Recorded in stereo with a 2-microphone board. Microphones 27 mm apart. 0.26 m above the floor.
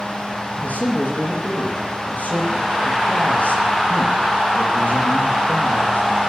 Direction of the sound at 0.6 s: 75° left (ahead or behind).